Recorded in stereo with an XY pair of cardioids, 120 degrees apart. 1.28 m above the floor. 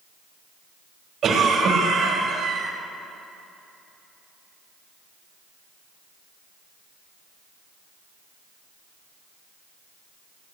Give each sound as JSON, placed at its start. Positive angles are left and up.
{"t": 1.2, "sound": "a cough", "azimuth_deg": -45, "distance_m": 5.5}